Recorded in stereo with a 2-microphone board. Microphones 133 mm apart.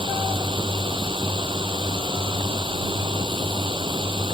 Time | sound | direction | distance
0.0 | a drone | 40° right (ahead or behind) | ?